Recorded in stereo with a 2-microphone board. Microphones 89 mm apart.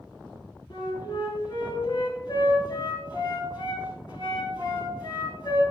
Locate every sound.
0.7 s a flute: 50° left (ahead or behind), 2.5 m